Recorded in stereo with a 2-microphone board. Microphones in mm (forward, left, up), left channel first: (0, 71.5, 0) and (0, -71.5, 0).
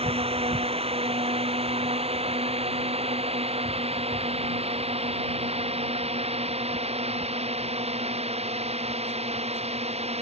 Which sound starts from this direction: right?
A drone, at 0.0 s.